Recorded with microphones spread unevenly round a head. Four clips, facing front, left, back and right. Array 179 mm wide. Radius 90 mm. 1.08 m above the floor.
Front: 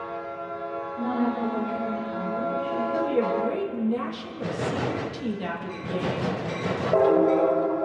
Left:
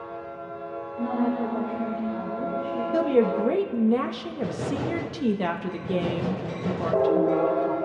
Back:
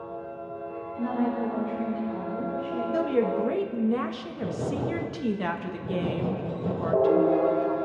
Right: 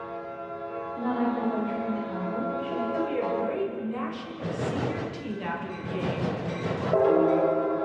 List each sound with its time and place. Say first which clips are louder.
0.9 s a woman speaking: left 2 dB, front 1 dB; 90° right, 7 m; by 2.8 s 85° right, 7 m
2.9 s a woman speaking: left 9 dB, back 1 dB; 90° left, 1.3 m